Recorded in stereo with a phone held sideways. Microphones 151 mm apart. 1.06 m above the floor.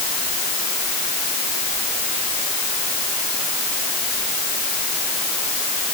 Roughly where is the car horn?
No car horn in this recording.